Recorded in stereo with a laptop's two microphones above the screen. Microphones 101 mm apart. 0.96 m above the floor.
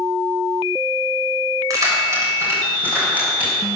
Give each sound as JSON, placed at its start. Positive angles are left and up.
{"t": 1.7, "sound": "keys jangling", "side_deg": -35, "distance_m": 3.0}